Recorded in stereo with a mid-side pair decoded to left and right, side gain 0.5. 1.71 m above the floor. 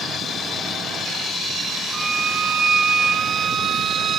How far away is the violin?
About 0.5 m.